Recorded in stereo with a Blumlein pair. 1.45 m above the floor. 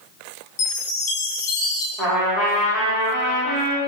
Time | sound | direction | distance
0.6 | a chime | 45° left | 1.3 m
2.0 | a trumpet | 25° right | 1.9 m